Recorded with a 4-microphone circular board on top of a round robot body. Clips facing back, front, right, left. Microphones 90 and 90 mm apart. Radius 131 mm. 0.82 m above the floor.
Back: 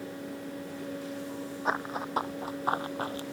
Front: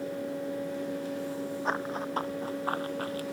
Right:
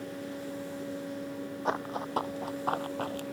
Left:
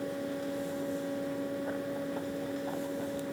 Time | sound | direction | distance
1.6 | running footsteps | 95° right | ?